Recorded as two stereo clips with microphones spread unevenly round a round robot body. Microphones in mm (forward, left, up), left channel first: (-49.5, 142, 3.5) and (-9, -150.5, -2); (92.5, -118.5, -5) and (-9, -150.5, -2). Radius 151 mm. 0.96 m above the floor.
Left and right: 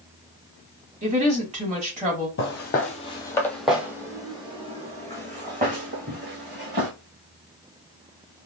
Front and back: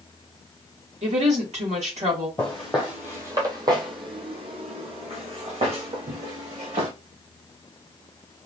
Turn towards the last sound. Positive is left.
turn(degrees=-140)